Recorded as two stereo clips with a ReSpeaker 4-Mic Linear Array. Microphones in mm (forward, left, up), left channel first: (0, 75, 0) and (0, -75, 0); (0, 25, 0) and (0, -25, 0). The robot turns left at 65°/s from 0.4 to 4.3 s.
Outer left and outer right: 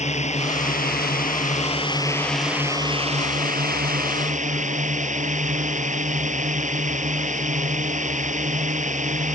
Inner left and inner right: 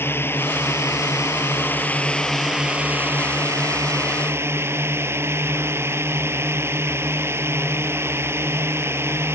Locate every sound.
0.0 s a drone: 130° left; by 9.3 s 125° right